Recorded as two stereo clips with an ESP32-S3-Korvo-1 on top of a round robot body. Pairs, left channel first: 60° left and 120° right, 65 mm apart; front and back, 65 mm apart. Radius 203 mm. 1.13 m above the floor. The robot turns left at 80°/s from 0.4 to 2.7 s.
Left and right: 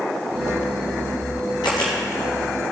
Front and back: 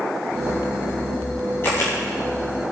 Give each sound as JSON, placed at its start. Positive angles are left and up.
{"t": 1.6, "sound": "a camera shutter", "azimuth_deg": 60, "distance_m": 3.0}